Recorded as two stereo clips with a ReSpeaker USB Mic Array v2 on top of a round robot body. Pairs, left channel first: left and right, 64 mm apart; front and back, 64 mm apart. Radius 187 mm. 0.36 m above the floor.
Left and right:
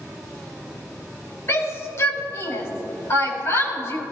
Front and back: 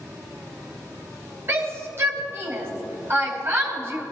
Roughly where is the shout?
Behind left.